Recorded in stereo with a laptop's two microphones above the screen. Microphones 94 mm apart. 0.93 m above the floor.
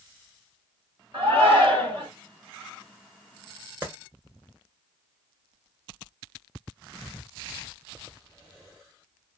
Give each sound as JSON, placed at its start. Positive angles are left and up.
{"t": 1.1, "sound": "a shout", "side_deg": -65, "distance_m": 1.5}
{"t": 3.8, "sound": "a clap", "side_deg": -20, "distance_m": 1.0}